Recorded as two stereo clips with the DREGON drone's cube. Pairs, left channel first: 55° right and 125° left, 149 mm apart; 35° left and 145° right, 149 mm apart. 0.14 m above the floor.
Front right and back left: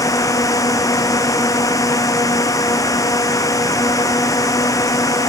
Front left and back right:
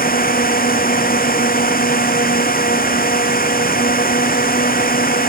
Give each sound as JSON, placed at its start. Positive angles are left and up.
{"t": 0.0, "sound": "a drone", "azimuth_deg": 15}